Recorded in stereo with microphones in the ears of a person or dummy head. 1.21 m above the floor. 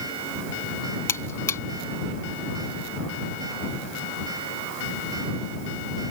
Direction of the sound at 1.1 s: 15° left (ahead or behind).